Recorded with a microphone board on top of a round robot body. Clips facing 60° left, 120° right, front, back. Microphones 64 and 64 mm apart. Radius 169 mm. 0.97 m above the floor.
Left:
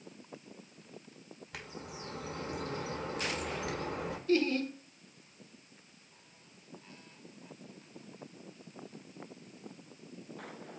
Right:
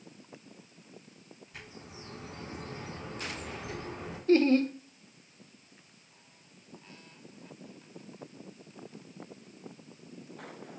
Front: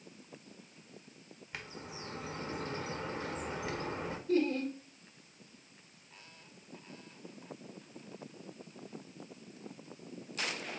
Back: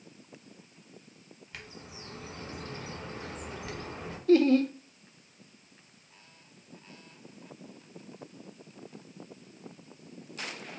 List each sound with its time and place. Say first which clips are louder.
1.5 s a bird: left 3 dB, front 2 dB; 65° left, 1.4 m
4.3 s laughter: right 7 dB, back 9 dB; 175° right, 0.7 m